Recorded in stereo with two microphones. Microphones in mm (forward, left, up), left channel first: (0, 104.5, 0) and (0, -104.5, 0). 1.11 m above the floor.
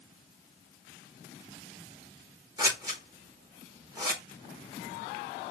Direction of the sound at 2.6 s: 20° right (ahead or behind).